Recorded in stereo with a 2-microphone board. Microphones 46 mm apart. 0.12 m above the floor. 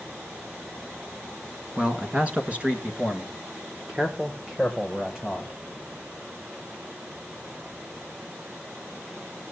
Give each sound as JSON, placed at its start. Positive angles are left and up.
{"t": 1.8, "sound": "a man speaking", "side_deg": -25, "distance_m": 1.1}